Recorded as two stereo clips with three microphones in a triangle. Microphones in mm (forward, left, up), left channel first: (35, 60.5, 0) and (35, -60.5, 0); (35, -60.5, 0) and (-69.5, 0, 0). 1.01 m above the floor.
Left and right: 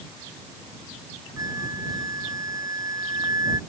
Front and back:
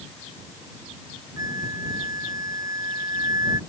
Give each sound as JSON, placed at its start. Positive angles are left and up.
{"t": 1.4, "sound": "a flute", "azimuth_deg": -150}